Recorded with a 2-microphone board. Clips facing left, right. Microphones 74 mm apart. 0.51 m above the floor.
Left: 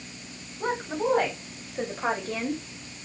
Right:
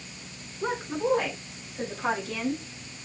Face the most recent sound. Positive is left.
turn(degrees=30)  # may be behind; listen again after turning